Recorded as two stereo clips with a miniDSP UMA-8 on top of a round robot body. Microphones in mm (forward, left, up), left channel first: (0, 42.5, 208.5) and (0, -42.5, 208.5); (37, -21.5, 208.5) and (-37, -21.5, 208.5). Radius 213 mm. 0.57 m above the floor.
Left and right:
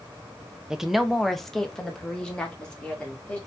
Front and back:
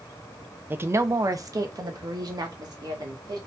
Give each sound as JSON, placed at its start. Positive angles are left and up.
{"t": 0.7, "sound": "a woman speaking", "azimuth_deg": -165, "distance_m": 0.7}